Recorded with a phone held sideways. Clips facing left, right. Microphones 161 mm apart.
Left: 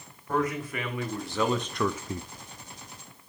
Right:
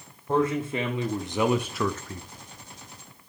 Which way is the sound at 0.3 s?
30° right (ahead or behind).